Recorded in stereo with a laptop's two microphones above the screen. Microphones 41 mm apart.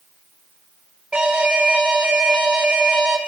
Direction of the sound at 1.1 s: 20° right (ahead or behind).